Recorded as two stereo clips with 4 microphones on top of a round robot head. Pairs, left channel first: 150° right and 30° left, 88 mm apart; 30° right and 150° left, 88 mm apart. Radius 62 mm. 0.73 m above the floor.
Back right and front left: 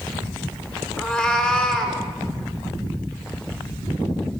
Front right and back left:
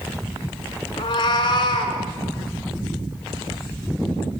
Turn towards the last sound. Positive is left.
turn(degrees=-70)